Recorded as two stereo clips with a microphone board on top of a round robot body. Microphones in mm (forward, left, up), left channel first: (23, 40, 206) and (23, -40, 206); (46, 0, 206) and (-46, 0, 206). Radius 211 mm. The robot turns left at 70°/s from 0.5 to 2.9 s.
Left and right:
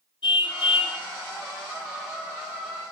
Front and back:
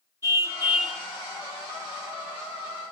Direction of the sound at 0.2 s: 120° left.